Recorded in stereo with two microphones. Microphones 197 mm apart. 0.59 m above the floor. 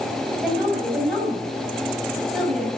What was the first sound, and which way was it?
A woman speaking, centre (ahead or behind).